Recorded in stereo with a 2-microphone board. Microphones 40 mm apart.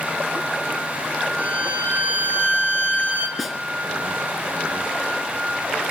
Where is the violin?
45° right (ahead or behind), 4.5 m.